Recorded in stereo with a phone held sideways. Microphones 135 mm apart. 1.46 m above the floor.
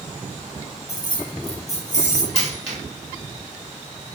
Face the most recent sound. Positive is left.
turn(degrees=50)  # may be behind; listen again after turning